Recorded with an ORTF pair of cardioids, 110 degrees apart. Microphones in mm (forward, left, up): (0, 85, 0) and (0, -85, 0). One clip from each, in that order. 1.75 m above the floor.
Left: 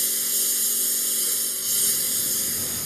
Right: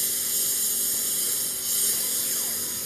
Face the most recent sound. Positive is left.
turn(degrees=15)